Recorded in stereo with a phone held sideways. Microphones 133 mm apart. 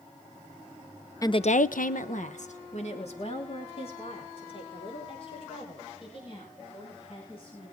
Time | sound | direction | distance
1.2 | a woman speaking | 25° left (ahead or behind) | 0.7 m